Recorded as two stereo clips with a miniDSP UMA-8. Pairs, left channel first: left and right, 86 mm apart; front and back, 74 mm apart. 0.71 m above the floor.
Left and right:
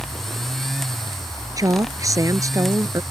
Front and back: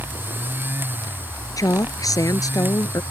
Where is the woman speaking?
40° right.